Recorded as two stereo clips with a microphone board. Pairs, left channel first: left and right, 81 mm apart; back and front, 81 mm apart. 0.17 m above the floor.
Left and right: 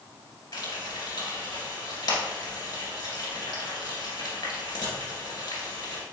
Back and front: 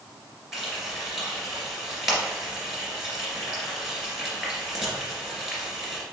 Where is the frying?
85° left, 2.0 m.